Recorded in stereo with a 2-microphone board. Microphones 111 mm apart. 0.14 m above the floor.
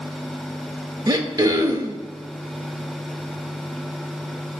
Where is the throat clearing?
40° right (ahead or behind), 0.5 m.